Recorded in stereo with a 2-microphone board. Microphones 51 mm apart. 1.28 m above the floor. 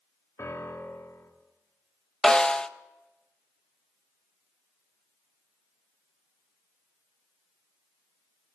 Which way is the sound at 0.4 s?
75° left (ahead or behind).